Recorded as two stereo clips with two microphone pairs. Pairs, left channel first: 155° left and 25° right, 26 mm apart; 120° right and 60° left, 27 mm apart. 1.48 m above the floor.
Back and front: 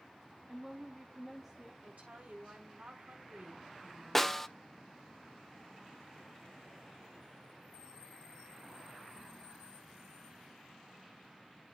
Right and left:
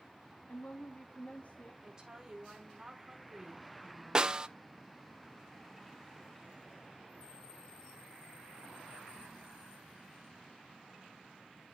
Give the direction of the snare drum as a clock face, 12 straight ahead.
9 o'clock.